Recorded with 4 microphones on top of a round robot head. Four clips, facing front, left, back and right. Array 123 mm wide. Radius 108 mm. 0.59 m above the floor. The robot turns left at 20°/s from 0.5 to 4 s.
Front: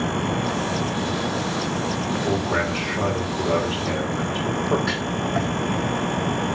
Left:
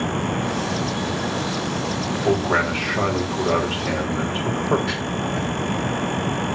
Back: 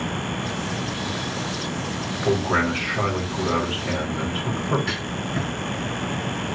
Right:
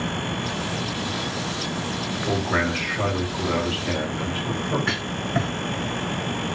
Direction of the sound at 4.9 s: 55° right.